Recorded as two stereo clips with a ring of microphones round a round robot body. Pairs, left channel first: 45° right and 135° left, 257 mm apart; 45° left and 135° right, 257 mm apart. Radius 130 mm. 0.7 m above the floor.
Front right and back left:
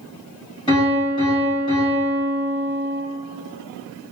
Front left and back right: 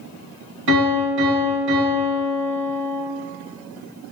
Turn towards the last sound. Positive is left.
turn(degrees=-115)